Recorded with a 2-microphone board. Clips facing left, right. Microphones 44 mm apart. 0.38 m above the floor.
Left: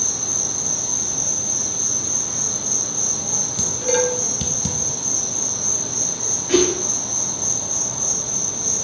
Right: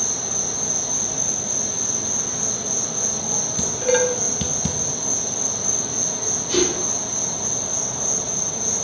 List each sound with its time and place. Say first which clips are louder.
0.0 s an insect: right 1 dB; 20° right (ahead or behind), 2 m
3.6 s dishes clattering: right 1 dB; 15° right (ahead or behind), 1.0 m
6.5 s a whoosh: left 4 dB; 75° left (ahead or behind), 4 m